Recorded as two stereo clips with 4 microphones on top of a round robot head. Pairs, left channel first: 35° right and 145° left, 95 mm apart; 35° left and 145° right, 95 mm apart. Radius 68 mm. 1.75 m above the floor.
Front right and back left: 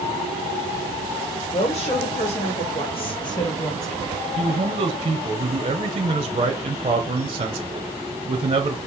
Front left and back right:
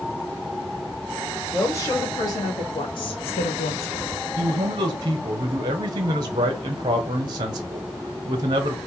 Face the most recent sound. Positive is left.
turn(degrees=170)